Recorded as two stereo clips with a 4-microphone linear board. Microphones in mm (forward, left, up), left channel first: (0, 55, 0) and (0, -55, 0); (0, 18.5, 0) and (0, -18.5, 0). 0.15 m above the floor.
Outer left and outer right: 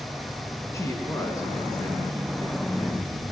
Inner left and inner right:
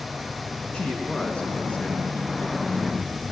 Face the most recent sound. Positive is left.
turn(degrees=35)  # may be behind; listen again after turning